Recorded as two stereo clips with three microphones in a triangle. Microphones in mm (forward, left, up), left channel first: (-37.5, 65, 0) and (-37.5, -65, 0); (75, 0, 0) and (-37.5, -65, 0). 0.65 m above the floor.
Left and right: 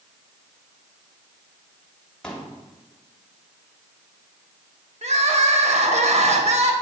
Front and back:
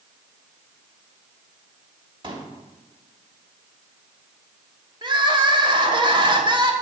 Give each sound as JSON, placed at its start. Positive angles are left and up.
{"t": 2.2, "sound": "a pop", "azimuth_deg": 170, "distance_m": 1.5}
{"t": 5.0, "sound": "crying", "azimuth_deg": -105, "distance_m": 1.1}